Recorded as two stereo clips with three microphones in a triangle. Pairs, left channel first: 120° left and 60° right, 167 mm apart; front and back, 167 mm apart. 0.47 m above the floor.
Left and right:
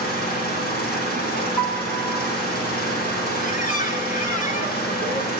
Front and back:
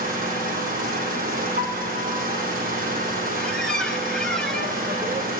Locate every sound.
0.0 s an engine running: 145° left, 6.5 m
1.6 s a piano: 175° left, 5 m
3.4 s a squeak: 85° left, 1.8 m